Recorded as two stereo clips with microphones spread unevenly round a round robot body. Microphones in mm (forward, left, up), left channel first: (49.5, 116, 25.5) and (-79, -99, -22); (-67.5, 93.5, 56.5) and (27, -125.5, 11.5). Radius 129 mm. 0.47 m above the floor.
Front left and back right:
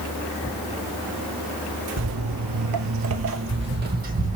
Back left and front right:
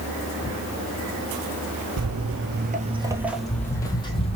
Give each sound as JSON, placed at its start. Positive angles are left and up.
{"t": 2.0, "sound": "footsteps", "azimuth_deg": -90, "distance_m": 0.9}